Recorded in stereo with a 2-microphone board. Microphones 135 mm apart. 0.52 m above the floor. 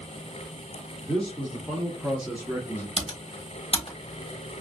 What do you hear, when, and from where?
1.1 s a man speaking: centre (ahead or behind), 1.2 m; by 2.9 s 10° right (ahead or behind), 0.9 m
3.0 s typing on a keyboard: 45° left (ahead or behind), 1.0 m